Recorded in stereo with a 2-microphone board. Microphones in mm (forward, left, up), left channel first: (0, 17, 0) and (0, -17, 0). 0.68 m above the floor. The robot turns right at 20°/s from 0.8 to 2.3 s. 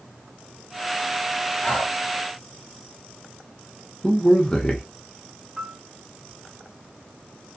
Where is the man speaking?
20° left (ahead or behind), 0.6 m.